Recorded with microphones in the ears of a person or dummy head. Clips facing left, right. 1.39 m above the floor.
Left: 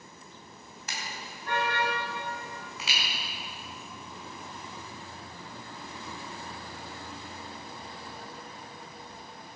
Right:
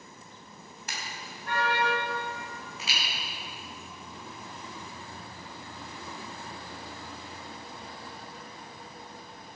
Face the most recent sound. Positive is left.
turn(degrees=60)  # may be behind; listen again after turning